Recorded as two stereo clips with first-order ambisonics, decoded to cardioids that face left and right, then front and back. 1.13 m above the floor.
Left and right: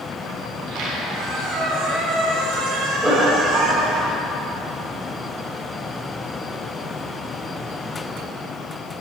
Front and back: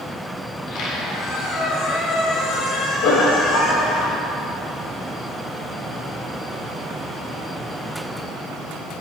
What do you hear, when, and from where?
0.5 s a squeak: 50° right, 2.5 m
3.0 s laughter: 15° right, 4.5 m